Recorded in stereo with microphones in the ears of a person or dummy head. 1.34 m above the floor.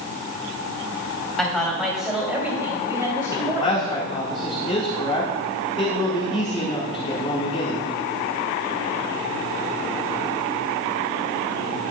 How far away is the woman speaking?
About 3 m.